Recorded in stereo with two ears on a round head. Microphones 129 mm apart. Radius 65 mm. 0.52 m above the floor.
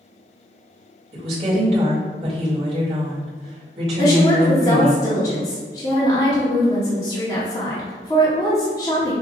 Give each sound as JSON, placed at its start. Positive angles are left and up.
{"t": 1.1, "sound": "a woman speaking", "side_deg": -45, "distance_m": 1.9}
{"t": 4.0, "sound": "a woman speaking", "side_deg": 25, "distance_m": 1.0}